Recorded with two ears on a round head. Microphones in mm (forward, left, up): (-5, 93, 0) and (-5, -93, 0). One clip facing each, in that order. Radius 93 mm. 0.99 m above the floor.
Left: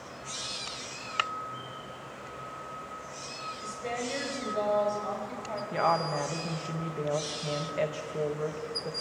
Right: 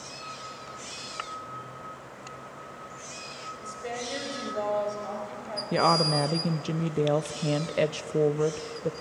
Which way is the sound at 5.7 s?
50° right (ahead or behind).